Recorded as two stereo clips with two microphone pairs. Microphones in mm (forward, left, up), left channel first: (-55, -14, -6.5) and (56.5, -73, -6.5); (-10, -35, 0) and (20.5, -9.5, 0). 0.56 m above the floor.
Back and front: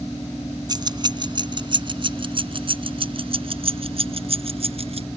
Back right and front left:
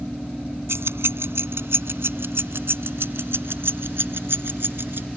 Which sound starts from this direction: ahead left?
Keys jangling, at 0.7 s.